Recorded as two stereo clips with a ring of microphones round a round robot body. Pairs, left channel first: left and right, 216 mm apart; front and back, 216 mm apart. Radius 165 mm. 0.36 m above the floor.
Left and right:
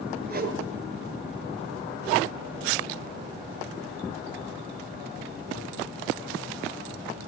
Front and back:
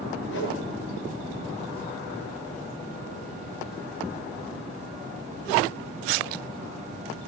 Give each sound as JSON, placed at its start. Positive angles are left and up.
{"t": 0.3, "sound": "a whoosh", "azimuth_deg": -45, "distance_m": 5.5}